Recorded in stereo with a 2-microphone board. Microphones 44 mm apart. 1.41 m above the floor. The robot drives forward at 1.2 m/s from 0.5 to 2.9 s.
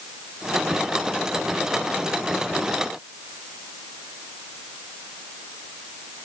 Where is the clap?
I don't hear a clap.